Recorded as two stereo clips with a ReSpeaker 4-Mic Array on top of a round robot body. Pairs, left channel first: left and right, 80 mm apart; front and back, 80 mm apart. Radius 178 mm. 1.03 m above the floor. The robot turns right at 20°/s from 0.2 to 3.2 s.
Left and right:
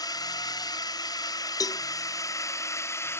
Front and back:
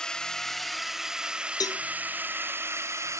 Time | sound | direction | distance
0.0 | a drone | 80° left | ?
1.6 | a cowbell | 45° left | ?